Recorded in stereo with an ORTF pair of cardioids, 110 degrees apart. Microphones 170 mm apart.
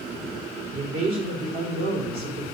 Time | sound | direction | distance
0.7 | a man speaking | 65° right | 4 m